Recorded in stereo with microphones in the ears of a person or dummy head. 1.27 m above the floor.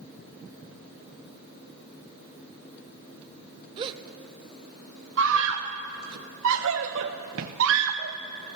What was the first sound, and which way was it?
A gasp, 30° right (ahead or behind).